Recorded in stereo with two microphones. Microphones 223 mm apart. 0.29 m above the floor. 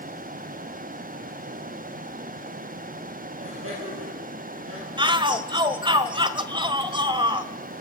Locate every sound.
3.4 s laughter: 80° right, 7.5 m
5.0 s a shout: 20° right (ahead or behind), 1.1 m